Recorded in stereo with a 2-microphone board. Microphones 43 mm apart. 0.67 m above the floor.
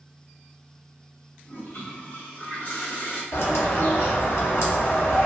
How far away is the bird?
About 0.7 m.